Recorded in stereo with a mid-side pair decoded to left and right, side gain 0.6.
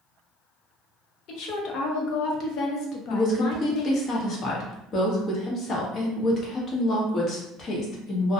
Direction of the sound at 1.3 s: 60° left.